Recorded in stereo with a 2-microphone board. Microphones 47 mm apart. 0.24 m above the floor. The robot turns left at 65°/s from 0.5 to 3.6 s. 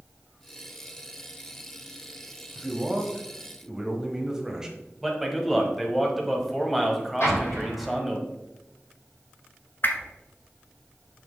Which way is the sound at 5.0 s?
Centre (ahead or behind).